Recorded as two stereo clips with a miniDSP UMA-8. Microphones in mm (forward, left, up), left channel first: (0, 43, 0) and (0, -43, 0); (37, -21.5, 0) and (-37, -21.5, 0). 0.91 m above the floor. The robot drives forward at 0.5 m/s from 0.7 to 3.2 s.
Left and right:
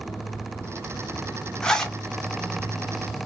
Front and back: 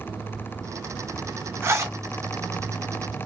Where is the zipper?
165° left, 0.5 m; by 2.0 s 170° left, 0.6 m.